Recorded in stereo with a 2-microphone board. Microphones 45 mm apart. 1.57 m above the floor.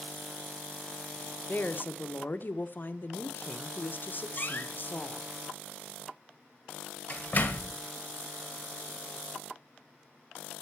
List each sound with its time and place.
1.5 s a woman speaking: 45° left (ahead or behind), 1.0 m
4.4 s a door slam: 40° left (ahead or behind), 1.8 m